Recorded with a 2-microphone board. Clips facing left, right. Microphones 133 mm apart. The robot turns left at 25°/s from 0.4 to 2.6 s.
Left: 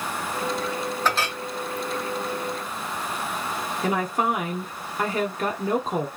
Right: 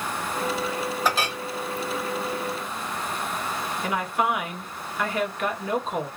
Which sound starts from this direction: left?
A woman speaking, at 3.8 s.